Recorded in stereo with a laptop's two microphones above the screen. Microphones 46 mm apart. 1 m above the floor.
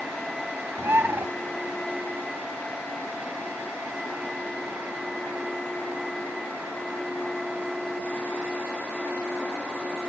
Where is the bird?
65° right (ahead or behind), 0.7 m.